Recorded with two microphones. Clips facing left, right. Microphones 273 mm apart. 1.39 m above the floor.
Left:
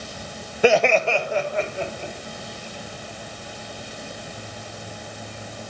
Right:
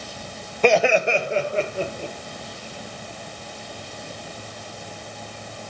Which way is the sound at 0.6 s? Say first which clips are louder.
Even; 10° left (ahead or behind).